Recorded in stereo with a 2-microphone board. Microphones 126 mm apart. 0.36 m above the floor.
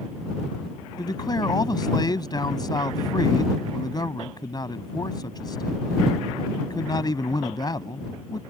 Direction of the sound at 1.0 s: 35° left (ahead or behind).